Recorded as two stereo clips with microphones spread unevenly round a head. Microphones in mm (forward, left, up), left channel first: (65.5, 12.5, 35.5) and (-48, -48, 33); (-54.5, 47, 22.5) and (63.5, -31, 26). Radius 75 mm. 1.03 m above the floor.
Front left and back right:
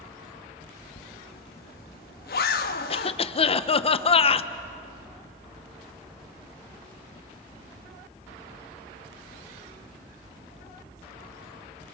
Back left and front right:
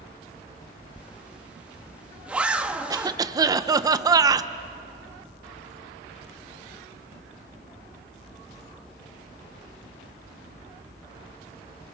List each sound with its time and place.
1.0 s a zipper: 50° left, 0.8 m
2.9 s a cough: 20° left, 0.8 m